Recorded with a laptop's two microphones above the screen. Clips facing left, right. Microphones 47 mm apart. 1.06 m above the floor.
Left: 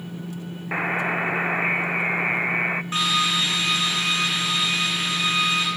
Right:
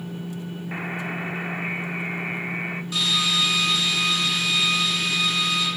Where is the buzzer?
35° left (ahead or behind), 0.7 m.